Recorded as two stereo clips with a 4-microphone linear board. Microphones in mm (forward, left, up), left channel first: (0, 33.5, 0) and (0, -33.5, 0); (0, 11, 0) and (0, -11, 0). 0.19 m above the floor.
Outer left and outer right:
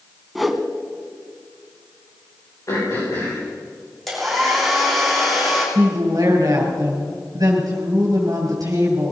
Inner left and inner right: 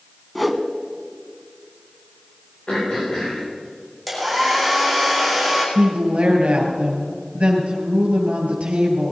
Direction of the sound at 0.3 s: Centre (ahead or behind).